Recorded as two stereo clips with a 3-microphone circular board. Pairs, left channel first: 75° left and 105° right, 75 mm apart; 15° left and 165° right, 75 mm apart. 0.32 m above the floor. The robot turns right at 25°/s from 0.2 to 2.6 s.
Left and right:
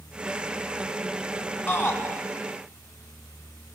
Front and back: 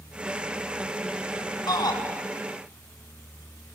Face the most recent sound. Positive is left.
turn(degrees=35)